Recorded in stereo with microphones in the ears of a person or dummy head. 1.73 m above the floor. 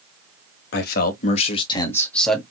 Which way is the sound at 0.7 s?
55° left (ahead or behind).